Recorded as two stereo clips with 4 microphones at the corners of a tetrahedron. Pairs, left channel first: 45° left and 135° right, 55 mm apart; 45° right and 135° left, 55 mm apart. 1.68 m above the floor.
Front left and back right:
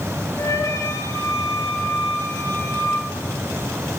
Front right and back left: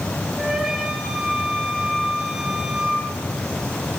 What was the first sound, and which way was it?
A flute, 50° left.